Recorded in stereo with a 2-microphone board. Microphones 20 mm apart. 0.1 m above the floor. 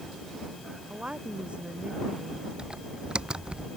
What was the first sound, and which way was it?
A woman speaking, 60° right (ahead or behind).